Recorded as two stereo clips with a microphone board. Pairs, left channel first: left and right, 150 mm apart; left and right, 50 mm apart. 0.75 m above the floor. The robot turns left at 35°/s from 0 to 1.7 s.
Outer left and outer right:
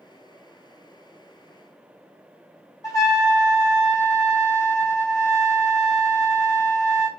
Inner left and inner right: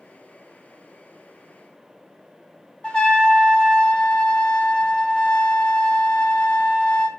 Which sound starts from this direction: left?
A trumpet, at 2.8 s.